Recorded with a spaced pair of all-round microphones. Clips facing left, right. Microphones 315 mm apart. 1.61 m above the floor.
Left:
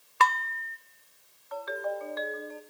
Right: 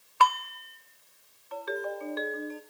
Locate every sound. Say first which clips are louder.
0.2 s dishes clattering: right 1 dB; 30° left (ahead or behind), 0.7 m
1.5 s a ringtone: even; 40° right (ahead or behind), 1.4 m